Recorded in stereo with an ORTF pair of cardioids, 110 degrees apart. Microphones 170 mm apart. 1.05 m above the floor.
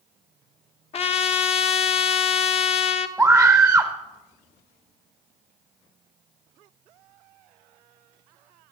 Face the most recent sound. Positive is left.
turn(degrees=-10)